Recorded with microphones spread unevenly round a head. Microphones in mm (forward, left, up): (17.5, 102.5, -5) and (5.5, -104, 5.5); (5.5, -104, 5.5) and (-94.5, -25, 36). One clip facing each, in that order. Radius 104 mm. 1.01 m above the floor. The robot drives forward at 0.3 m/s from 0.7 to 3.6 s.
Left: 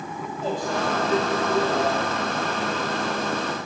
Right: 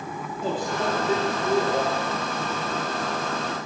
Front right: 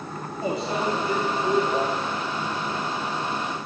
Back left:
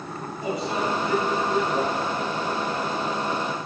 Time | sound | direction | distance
0.4 | a microwave | 95° right | 2 m